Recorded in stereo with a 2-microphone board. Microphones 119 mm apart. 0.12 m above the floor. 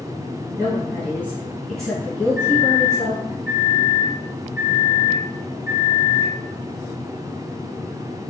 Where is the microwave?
15° right (ahead or behind), 1.3 m.